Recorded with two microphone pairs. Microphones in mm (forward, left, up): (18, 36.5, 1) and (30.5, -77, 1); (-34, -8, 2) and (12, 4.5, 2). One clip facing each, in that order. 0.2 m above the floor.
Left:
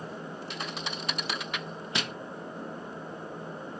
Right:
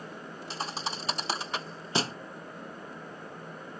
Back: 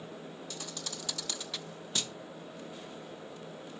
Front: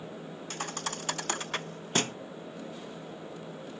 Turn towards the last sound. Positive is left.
turn(degrees=-25)